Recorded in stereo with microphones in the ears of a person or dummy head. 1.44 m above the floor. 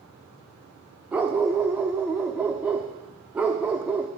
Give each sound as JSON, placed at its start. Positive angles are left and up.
{"t": 1.1, "sound": "a dog barking", "side_deg": -10, "distance_m": 1.2}